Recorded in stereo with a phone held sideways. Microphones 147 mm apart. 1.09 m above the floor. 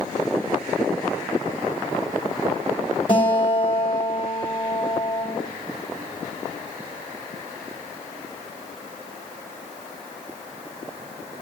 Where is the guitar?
35° left (ahead or behind), 3 m.